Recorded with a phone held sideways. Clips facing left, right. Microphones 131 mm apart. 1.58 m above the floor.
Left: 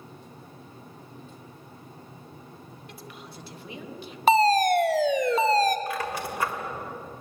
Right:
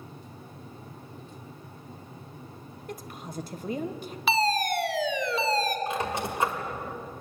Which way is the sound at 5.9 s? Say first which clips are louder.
Right 1 dB; 20° right (ahead or behind).